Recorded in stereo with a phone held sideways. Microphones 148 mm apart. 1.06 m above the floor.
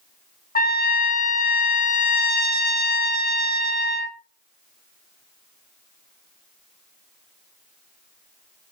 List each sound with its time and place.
0.6 s a trumpet: 80° left, 0.6 m